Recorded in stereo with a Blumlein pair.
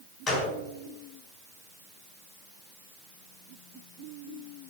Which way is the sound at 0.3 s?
15° left.